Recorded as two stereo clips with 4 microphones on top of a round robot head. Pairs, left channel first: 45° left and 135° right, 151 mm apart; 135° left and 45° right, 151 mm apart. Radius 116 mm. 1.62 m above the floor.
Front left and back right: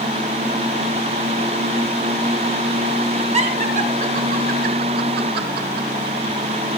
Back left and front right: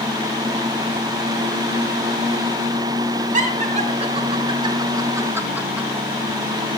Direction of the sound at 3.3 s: 85° right.